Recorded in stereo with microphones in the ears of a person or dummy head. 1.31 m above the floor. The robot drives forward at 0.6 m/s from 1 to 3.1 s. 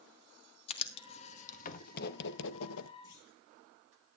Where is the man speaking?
I don't hear a man speaking.